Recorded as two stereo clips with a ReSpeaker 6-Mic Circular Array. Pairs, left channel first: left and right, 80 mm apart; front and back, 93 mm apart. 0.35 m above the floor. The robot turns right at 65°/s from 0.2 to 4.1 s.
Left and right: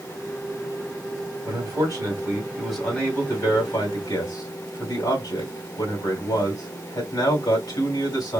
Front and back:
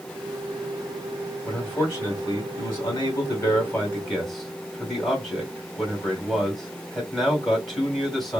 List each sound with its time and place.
1.4 s a man speaking: 85° right, 2.5 m; by 8.4 s 90° left, 2.5 m